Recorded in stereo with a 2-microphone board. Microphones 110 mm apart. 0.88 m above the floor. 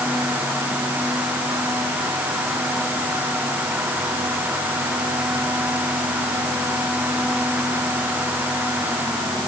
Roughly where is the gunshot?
I don't hear a gunshot.